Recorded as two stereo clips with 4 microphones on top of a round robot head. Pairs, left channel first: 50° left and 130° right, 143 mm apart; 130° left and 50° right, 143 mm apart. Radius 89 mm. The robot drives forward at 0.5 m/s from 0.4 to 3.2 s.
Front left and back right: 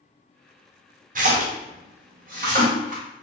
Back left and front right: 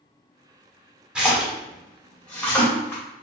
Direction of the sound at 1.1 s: 130° right.